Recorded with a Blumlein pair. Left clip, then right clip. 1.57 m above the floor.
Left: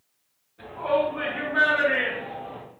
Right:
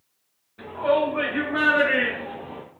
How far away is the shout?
About 2 m.